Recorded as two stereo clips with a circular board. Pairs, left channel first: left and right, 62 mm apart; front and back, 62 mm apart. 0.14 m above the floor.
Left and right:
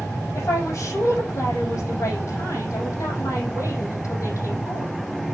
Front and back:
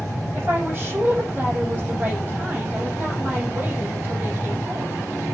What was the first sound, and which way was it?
A woman speaking, 125° left.